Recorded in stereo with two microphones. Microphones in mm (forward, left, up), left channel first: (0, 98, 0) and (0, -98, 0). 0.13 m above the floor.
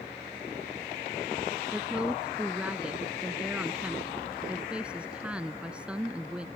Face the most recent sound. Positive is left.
turn(degrees=-5)  # may be behind; listen again after turning